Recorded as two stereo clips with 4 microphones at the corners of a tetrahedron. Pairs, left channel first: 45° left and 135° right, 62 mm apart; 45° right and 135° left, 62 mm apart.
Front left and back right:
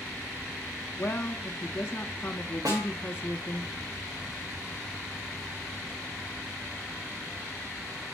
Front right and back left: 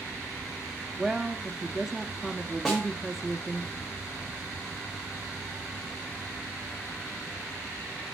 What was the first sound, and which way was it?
A woman speaking, 60° left.